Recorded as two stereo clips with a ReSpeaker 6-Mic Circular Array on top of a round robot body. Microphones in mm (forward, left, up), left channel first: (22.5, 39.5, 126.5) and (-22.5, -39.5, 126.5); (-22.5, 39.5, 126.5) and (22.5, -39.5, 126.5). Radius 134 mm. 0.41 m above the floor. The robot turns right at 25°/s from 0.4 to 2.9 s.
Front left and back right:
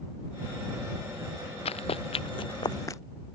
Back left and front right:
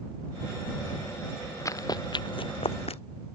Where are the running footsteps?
65° left; by 3.0 s 120° left.